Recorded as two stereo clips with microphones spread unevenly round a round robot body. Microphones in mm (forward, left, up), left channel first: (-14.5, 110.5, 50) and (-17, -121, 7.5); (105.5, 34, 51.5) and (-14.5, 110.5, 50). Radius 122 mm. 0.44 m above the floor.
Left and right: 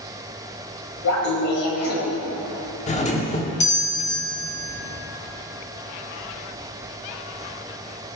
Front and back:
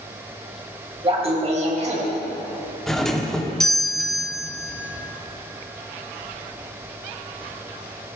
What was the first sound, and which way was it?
Laughter, 100° left.